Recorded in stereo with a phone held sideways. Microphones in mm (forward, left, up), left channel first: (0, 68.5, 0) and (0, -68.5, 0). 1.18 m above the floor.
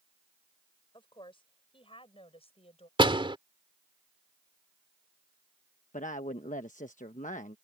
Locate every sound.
0.9 s a woman speaking: 35° left (ahead or behind); by 2.9 s 45° left (ahead or behind)
3.0 s a door slam: 40° right (ahead or behind)
5.9 s a woman speaking: 70° left (ahead or behind)